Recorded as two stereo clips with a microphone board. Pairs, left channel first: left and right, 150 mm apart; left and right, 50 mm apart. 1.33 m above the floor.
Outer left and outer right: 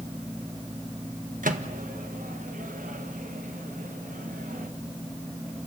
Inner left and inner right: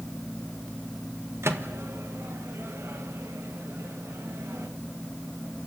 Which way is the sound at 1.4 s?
65° right (ahead or behind).